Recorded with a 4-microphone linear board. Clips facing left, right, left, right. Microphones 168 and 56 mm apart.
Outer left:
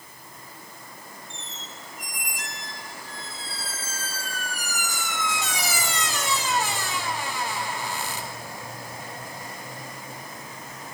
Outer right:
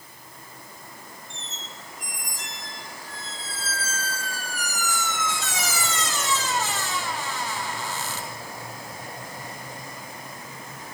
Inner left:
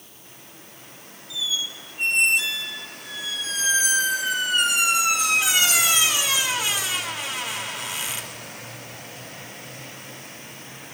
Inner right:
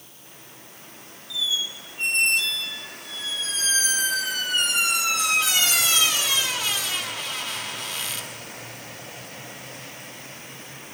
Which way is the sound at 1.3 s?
15° left (ahead or behind).